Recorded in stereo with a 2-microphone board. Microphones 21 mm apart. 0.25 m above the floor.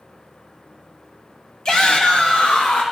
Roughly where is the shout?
Left.